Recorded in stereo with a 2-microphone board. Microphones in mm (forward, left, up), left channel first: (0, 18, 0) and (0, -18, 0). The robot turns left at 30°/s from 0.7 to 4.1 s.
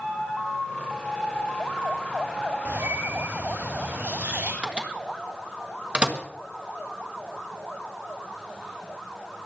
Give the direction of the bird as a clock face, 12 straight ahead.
2 o'clock.